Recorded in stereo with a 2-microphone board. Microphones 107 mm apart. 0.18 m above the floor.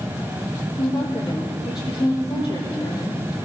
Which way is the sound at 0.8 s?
40° left (ahead or behind).